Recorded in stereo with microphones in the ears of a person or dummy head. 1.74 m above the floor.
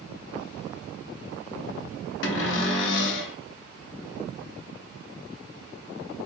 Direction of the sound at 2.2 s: 80° left.